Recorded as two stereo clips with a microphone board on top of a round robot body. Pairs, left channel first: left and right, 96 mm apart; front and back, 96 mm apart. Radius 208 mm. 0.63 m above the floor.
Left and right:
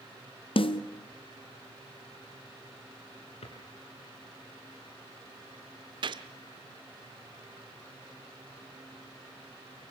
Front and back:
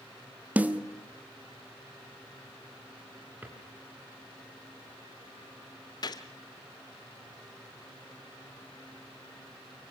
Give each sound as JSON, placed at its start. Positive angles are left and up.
{"t": 0.6, "sound": "a snare drum", "azimuth_deg": 105, "distance_m": 1.4}
{"t": 3.4, "sound": "a drawer", "azimuth_deg": 110, "distance_m": 3.5}
{"t": 6.0, "sound": "a gunshot", "azimuth_deg": -50, "distance_m": 0.7}